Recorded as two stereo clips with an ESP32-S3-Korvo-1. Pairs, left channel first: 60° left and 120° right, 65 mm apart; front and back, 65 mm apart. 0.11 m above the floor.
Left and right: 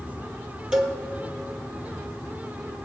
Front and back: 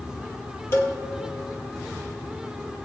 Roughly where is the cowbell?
Ahead right.